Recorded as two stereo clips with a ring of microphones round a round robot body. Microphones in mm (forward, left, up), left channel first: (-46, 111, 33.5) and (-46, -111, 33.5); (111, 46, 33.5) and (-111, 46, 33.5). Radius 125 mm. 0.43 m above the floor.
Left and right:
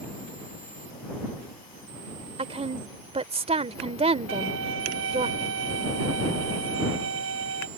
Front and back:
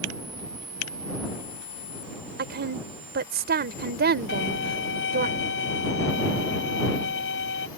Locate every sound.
2.4 s a woman speaking: 145° right
4.3 s a violin: 45° right